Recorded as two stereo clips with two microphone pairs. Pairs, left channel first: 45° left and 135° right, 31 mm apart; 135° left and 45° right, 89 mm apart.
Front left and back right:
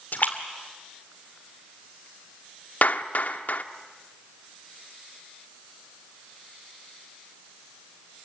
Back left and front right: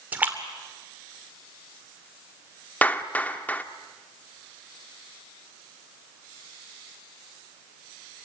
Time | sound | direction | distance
0.1 | a splash | 25° left | 2.5 m
2.8 | a clap | 65° left | 1.1 m